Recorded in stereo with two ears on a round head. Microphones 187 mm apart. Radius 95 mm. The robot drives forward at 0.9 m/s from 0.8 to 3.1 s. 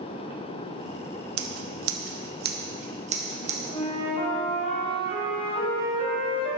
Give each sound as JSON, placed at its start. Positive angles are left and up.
{"t": 1.4, "sound": "scissors", "side_deg": -65, "distance_m": 1.0}
{"t": 3.7, "sound": "a flute", "side_deg": 30, "distance_m": 2.5}